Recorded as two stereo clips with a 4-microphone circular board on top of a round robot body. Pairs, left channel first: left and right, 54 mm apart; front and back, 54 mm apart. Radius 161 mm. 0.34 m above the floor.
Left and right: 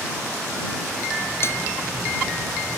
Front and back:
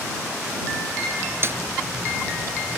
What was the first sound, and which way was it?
A snare drum, 135° left.